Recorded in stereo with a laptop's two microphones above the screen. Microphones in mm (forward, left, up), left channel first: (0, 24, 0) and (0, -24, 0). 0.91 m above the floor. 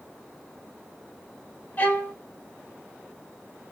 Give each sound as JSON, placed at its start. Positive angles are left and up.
{"t": 1.8, "sound": "a violin", "side_deg": 40, "distance_m": 0.9}